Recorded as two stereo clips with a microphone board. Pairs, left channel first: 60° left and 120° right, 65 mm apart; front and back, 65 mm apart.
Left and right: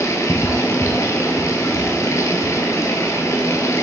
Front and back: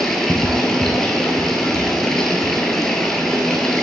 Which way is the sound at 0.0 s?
85° left.